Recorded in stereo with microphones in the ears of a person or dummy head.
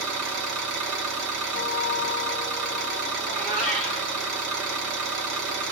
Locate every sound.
0.0 s an engine running: 75° right (ahead or behind), 0.9 m
1.5 s a guitar: 35° right (ahead or behind), 1.3 m
3.2 s a cat meowing: 40° right (ahead or behind), 1.4 m